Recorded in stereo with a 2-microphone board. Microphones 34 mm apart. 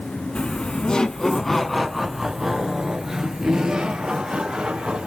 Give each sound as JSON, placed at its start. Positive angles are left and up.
{"t": 0.3, "sound": "laughter", "side_deg": 35, "distance_m": 1.3}